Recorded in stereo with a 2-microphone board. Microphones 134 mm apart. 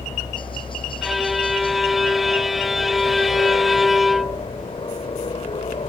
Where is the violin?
Centre (ahead or behind).